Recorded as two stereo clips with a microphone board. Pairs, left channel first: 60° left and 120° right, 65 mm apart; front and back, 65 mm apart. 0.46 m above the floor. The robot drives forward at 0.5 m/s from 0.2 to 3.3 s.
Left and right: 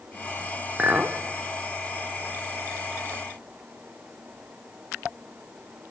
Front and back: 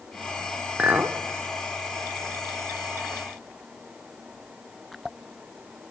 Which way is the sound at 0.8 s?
145° right.